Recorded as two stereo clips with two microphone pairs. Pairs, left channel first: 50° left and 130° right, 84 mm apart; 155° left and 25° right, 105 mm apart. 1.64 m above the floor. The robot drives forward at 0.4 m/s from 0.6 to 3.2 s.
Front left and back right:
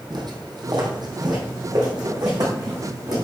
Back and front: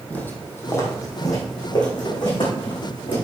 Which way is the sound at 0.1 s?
135° right.